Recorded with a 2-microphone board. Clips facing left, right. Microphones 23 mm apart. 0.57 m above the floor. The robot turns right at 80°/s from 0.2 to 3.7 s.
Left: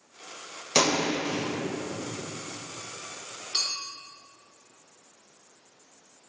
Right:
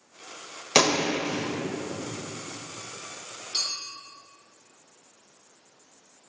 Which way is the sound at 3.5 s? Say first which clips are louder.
Even; 75° left (ahead or behind).